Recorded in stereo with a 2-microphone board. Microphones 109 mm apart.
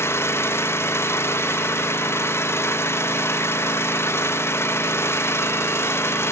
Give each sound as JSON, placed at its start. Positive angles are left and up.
{"t": 0.0, "sound": "an engine running", "side_deg": 25, "distance_m": 1.1}